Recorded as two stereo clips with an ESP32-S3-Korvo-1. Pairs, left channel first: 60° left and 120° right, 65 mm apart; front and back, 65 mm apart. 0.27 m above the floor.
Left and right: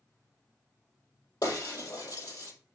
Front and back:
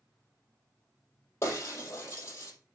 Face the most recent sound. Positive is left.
turn(degrees=50)